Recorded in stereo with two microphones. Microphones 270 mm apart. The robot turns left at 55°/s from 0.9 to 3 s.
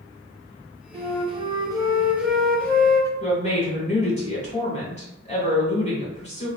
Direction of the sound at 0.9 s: 20° right (ahead or behind).